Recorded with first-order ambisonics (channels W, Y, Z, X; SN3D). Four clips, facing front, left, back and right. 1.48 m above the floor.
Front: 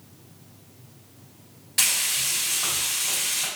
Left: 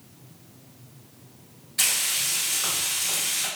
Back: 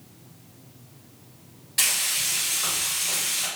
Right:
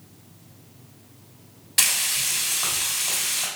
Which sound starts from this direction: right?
Frying, at 1.8 s.